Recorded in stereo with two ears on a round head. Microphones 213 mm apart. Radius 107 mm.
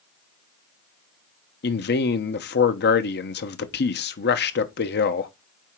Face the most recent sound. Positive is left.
turn(degrees=45)  # may be behind; listen again after turning